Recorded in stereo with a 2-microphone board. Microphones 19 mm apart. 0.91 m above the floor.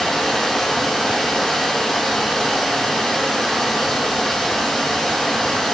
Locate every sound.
0.0 s running water: 30° left (ahead or behind), 6.5 m